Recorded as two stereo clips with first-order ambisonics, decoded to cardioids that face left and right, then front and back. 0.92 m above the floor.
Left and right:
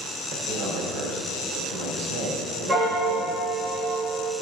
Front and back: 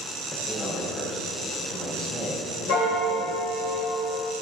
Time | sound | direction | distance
0.3 | a man speaking | 65° right | 2.5 m
2.7 | a piano | 20° right | 1.7 m